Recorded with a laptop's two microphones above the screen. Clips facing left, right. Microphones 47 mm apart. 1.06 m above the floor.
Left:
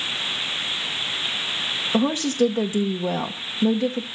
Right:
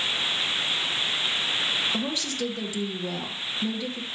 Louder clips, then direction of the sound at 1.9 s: Left 9 dB; 40° left (ahead or behind).